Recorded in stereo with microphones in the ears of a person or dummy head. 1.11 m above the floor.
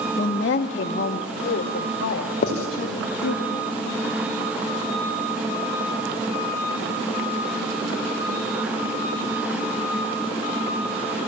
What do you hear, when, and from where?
0.2 s a woman speaking: 40° left (ahead or behind), 0.6 m; by 3.4 s 75° left (ahead or behind), 2.5 m
2.4 s writing: 50° left (ahead or behind), 2.5 m